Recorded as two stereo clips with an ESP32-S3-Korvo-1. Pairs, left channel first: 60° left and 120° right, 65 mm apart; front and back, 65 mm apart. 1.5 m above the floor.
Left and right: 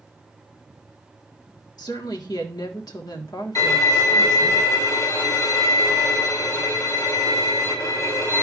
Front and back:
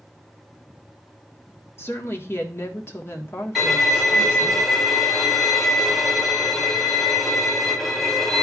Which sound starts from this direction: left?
A violin, at 3.5 s.